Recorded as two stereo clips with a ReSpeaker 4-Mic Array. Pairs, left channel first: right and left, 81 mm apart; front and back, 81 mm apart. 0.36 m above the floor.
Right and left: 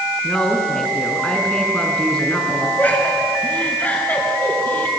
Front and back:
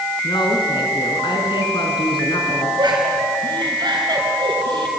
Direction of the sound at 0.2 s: 10° right.